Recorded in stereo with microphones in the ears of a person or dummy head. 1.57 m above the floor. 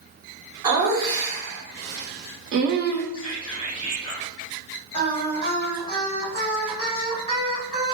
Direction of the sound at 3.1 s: 25° left (ahead or behind).